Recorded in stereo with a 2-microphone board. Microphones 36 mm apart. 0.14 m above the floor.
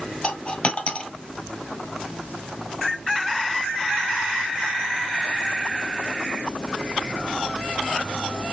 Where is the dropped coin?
40° left (ahead or behind), 1.2 m.